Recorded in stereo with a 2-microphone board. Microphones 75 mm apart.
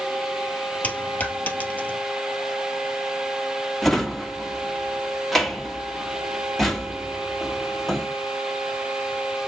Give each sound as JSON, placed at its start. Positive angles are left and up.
{"t": 0.8, "sound": "a dropped coin", "side_deg": 20, "distance_m": 1.8}
{"t": 3.8, "sound": "a drawer", "side_deg": 0, "distance_m": 1.6}